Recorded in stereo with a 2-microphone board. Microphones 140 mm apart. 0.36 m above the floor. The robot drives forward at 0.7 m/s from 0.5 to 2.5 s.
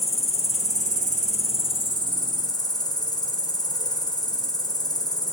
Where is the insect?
55° left (ahead or behind), 0.8 m; by 5.3 s 30° left (ahead or behind), 1.3 m.